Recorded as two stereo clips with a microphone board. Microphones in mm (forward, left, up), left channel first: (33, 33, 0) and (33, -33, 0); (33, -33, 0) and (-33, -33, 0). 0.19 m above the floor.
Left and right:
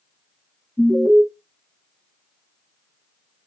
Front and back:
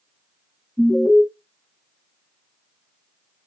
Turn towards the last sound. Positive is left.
turn(degrees=120)